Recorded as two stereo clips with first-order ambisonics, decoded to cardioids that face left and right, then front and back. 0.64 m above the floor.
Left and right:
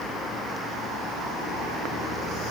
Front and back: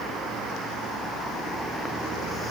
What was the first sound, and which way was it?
Only background noise.